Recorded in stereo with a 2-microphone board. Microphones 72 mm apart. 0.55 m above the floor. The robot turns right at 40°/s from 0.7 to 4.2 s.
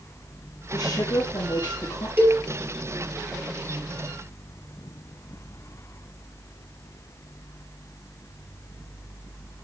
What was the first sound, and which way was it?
A woman speaking, 60° left.